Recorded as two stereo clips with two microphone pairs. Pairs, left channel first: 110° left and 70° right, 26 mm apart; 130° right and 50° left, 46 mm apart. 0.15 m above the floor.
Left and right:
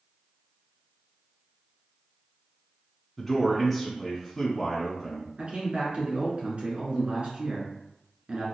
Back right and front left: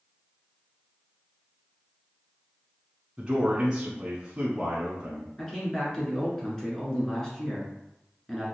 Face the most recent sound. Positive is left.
turn(degrees=-60)